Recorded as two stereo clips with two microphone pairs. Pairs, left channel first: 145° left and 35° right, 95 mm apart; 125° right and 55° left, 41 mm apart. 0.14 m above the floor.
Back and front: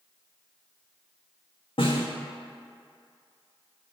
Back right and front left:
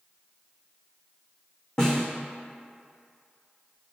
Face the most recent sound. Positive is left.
turn(degrees=165)